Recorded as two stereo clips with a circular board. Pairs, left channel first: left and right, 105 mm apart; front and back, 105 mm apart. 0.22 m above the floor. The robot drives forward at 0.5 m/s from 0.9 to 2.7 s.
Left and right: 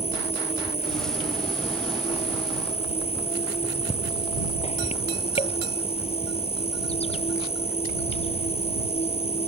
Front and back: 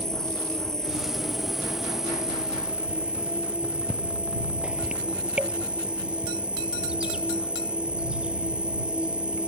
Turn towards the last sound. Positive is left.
turn(degrees=100)